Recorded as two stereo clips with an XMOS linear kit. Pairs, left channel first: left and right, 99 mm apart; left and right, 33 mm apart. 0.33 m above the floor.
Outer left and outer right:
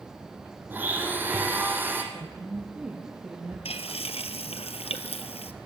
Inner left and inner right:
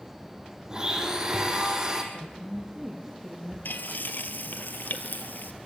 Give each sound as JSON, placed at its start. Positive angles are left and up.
{"t": 0.7, "sound": "a blender", "side_deg": -20, "distance_m": 4.5}
{"t": 2.1, "sound": "a woman speaking", "side_deg": -10, "distance_m": 6.5}
{"t": 3.6, "sound": "frying", "side_deg": 85, "distance_m": 1.9}